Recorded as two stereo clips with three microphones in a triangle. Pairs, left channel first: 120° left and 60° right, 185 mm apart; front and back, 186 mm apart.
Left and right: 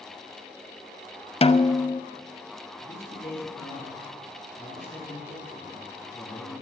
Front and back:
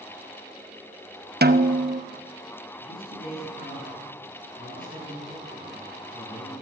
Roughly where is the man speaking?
Ahead left.